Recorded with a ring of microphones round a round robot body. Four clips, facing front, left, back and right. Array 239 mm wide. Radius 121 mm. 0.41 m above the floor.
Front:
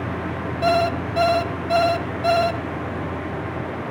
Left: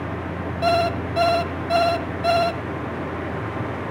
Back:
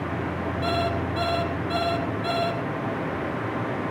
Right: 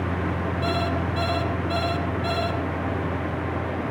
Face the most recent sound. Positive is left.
turn(degrees=45)